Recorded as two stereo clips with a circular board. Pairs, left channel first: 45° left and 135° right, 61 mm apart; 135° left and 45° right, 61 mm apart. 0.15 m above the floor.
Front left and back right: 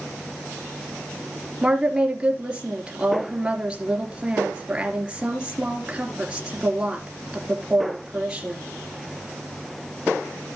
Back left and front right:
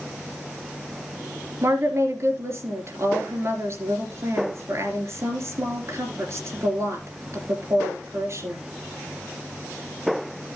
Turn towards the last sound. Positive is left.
turn(degrees=-65)